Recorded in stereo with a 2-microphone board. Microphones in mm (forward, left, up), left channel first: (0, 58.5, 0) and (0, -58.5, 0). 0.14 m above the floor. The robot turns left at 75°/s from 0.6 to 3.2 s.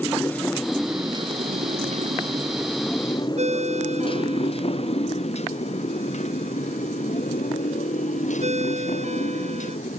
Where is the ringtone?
70° right (ahead or behind).